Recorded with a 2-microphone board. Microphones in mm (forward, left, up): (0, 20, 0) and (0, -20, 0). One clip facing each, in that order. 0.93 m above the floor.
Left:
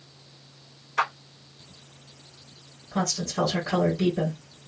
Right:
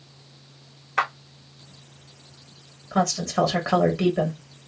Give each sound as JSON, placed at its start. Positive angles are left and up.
{"t": 1.0, "sound": "a clap", "side_deg": -45, "distance_m": 1.4}
{"t": 2.9, "sound": "a woman speaking", "side_deg": -75, "distance_m": 1.8}